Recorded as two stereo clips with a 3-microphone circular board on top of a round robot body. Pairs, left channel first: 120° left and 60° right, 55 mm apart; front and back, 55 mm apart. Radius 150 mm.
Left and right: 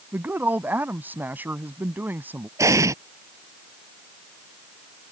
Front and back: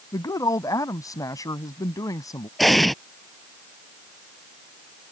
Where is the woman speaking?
Straight ahead.